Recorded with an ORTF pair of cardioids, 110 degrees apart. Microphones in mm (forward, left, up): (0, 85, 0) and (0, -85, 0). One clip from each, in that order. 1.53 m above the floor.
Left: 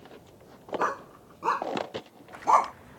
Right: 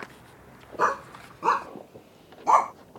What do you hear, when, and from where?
0.8 s a dog barking: 25° right; by 2.7 s straight ahead